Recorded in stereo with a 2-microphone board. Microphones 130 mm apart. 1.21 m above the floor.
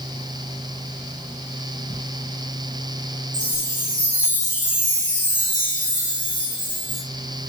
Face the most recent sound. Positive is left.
turn(degrees=-70)  # may be behind; listen again after turning